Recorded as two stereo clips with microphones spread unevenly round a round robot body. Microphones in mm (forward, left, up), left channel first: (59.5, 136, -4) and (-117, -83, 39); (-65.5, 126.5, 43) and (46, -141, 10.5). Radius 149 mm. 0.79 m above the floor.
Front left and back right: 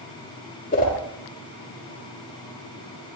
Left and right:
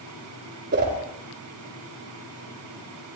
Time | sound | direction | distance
0.7 | a whoosh | 10° right | 4 m